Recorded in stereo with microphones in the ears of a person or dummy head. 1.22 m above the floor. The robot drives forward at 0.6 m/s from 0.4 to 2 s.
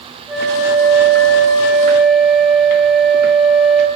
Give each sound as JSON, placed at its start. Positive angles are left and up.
{"t": 0.3, "sound": "a flute", "side_deg": 5, "distance_m": 3.0}